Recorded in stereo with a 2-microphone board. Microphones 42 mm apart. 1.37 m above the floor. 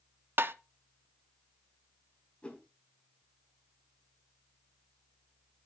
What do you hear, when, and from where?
0.4 s tapping: 65° right (ahead or behind), 0.6 m
2.4 s a whoosh: 30° left (ahead or behind), 3 m